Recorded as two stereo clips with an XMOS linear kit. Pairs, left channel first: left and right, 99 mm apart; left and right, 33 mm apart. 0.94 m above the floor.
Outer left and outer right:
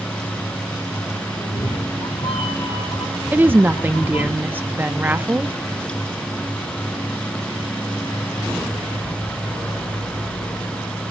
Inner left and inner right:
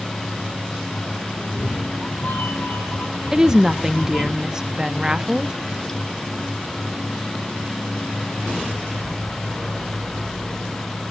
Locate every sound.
1.3 s a cat meowing: 65° left (ahead or behind), 1.4 m; by 4.3 s 80° left, 4.5 m
3.3 s a woman speaking: 20° right (ahead or behind), 0.7 m